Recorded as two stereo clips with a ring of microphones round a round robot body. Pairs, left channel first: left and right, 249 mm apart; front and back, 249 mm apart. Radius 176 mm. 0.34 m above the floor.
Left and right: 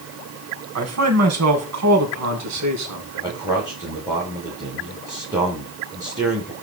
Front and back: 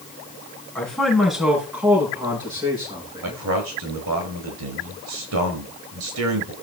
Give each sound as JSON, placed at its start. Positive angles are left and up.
{"t": 0.8, "sound": "a man speaking", "azimuth_deg": -85, "distance_m": 2.5}
{"t": 3.2, "sound": "a man speaking", "azimuth_deg": -170, "distance_m": 5.0}